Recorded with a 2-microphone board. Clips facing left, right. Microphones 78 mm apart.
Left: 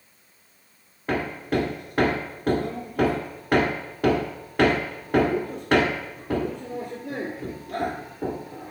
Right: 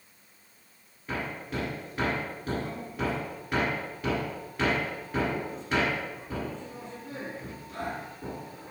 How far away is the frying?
I don't hear frying.